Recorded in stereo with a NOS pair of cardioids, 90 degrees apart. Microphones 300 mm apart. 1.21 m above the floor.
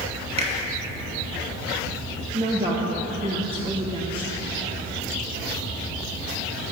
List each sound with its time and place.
0.4 s a finger snap: 20° right, 1.7 m
2.3 s a woman speaking: 20° right, 1.3 m